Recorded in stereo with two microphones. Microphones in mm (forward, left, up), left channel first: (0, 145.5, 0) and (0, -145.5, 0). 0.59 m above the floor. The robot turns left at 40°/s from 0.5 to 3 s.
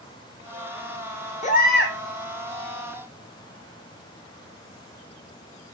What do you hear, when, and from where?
1.4 s a baby crying: 25° left (ahead or behind), 0.8 m; by 2.0 s 45° left (ahead or behind), 0.8 m